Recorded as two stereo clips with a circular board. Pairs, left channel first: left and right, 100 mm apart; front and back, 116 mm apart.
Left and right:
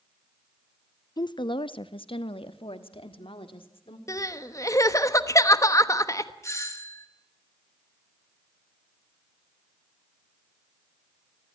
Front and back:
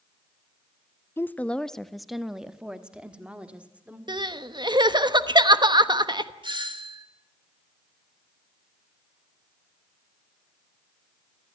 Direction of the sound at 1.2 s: 65° left.